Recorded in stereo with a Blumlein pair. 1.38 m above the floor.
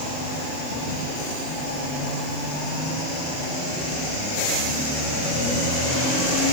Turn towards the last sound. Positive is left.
No sound to turn to.